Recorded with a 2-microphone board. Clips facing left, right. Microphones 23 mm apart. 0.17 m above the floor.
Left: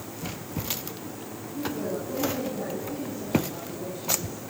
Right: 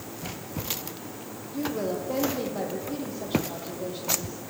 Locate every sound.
1.5 s a woman speaking: 50° right (ahead or behind), 6.5 m